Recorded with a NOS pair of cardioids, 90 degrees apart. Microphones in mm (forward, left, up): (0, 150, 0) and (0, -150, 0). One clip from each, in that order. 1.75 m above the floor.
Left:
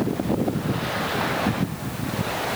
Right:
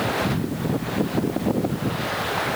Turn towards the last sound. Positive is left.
No sound to turn to.